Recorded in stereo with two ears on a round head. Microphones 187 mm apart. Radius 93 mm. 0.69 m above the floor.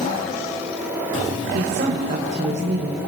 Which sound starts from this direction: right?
A woman speaking, at 1.5 s.